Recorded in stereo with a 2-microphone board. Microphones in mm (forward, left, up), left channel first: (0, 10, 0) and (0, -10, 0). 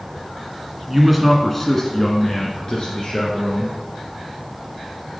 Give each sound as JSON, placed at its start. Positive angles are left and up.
{"t": 0.9, "sound": "a man speaking", "side_deg": -5, "distance_m": 1.2}